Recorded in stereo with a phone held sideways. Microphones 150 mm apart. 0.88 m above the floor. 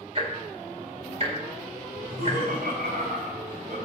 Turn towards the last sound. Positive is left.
turn(degrees=-80)